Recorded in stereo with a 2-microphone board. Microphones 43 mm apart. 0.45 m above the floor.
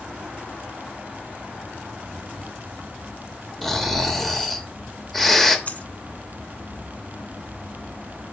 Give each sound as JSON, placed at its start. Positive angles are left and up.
{"t": 3.6, "sound": "snoring", "side_deg": 5, "distance_m": 1.1}
{"t": 5.7, "sound": "a dropped coin", "side_deg": 40, "distance_m": 0.8}